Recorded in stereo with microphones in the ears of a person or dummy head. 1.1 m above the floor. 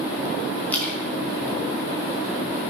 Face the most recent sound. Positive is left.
turn(degrees=5)  # may be behind; listen again after turning